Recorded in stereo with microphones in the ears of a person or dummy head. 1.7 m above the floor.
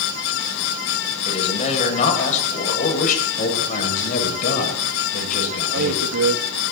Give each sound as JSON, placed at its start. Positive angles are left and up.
{"t": 1.2, "sound": "a man speaking", "side_deg": 35, "distance_m": 9.0}
{"t": 3.4, "sound": "a man speaking", "side_deg": 45, "distance_m": 9.0}
{"t": 5.7, "sound": "a man speaking", "side_deg": -85, "distance_m": 3.5}